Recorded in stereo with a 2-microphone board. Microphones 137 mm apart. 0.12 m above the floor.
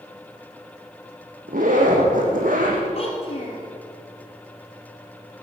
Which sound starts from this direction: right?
A zipper, at 1.5 s.